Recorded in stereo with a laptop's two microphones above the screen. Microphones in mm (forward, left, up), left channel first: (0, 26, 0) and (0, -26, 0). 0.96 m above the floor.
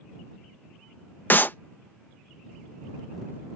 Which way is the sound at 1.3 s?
40° left (ahead or behind).